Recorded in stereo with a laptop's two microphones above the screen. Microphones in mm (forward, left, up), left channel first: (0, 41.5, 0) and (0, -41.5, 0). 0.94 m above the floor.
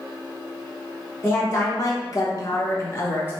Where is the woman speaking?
25° left (ahead or behind), 0.9 m; by 3.3 s 30° left (ahead or behind), 1.8 m.